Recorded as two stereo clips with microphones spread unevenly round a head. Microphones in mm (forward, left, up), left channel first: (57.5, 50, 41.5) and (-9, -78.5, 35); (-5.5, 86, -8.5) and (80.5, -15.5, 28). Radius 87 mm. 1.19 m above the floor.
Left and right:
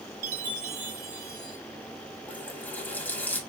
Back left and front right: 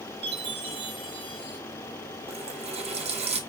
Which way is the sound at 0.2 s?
95° right.